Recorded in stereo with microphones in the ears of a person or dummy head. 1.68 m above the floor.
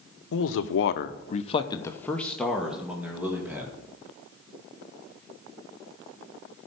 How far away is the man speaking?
About 1.0 m.